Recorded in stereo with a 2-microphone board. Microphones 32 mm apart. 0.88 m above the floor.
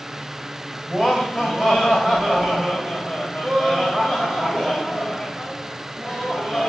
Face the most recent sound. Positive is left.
turn(degrees=5)  # may be behind; listen again after turning